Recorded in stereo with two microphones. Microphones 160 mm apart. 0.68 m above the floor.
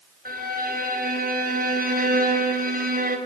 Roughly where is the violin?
Right.